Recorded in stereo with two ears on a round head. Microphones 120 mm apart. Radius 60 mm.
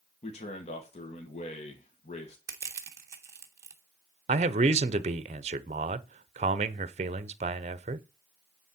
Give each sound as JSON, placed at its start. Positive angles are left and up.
{"t": 0.2, "sound": "a man speaking", "side_deg": 50, "distance_m": 1.6}
{"t": 2.5, "sound": "crushing", "side_deg": -20, "distance_m": 1.5}
{"t": 4.3, "sound": "a man speaking", "side_deg": -50, "distance_m": 0.7}